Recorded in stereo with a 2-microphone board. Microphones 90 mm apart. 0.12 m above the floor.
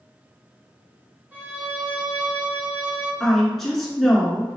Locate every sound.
1.3 s a violin: 20° right (ahead or behind), 1.4 m
3.2 s a woman speaking: 5° left (ahead or behind), 1.2 m